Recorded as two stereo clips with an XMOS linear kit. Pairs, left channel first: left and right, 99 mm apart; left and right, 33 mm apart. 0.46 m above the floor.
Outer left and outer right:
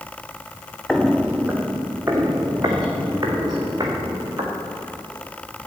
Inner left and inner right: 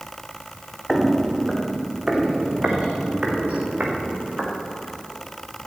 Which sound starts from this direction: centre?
Footsteps, at 0.9 s.